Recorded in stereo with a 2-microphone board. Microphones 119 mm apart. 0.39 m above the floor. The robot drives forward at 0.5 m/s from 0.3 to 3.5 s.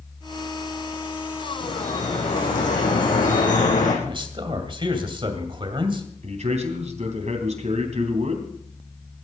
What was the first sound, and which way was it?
Dripping, 75° left (ahead or behind).